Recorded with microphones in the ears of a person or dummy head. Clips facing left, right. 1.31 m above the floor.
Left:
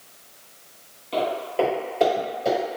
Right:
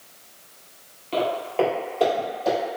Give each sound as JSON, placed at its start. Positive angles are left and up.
{"t": 1.1, "sound": "footsteps", "side_deg": -5, "distance_m": 2.0}